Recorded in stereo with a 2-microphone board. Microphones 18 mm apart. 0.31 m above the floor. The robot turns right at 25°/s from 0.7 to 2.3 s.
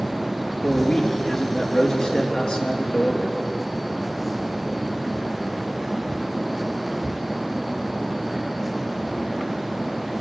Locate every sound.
0.6 s a man speaking: 5° left, 4 m; by 3.5 s 45° left, 4 m